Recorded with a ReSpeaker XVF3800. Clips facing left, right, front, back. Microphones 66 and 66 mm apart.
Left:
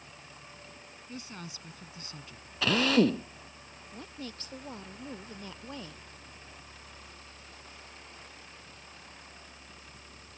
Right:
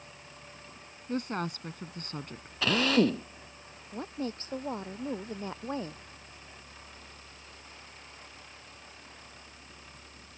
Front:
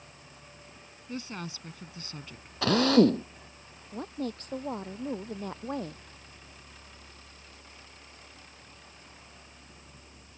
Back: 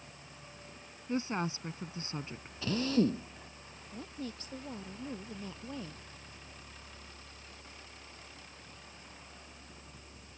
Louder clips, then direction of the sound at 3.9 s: Right 8 dB, front 8 dB; 35° right.